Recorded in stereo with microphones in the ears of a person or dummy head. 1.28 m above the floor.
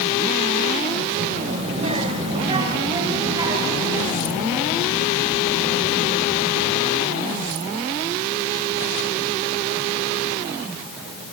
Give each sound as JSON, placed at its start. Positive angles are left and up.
{"t": 1.1, "sound": "a child speaking", "side_deg": -40, "distance_m": 3.0}